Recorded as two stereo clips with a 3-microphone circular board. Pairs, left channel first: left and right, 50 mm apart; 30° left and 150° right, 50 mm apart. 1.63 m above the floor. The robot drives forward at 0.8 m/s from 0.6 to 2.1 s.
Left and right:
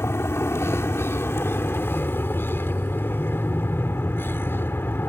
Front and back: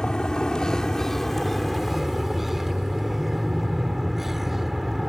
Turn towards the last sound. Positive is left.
turn(degrees=125)